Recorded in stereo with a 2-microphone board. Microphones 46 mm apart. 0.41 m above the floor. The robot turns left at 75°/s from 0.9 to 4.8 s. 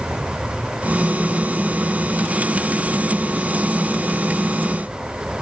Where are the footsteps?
I don't hear footsteps.